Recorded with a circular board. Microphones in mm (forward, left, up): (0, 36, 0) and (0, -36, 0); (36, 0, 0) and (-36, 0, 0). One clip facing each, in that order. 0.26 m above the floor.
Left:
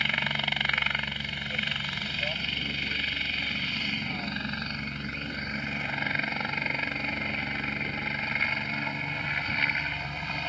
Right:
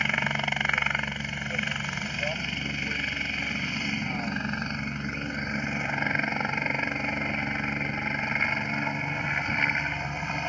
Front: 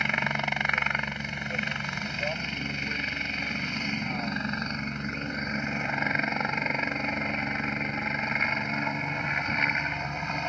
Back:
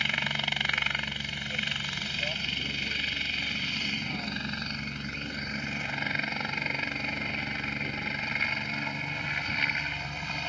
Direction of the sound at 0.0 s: 30° right.